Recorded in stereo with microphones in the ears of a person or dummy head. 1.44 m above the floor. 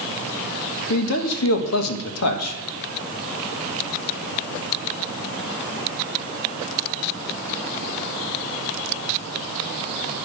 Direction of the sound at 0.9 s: 85° left.